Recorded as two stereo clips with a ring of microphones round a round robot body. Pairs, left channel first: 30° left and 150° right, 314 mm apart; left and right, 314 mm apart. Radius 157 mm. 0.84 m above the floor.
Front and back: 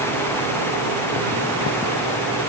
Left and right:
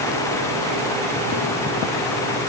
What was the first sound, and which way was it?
Only background noise.